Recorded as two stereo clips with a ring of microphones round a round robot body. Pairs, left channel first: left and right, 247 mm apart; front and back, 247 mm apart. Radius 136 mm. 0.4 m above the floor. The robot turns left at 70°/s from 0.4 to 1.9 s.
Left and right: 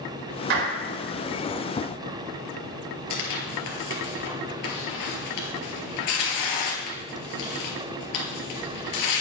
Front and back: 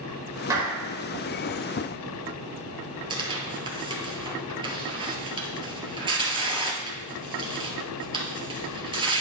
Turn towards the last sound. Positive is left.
turn(degrees=110)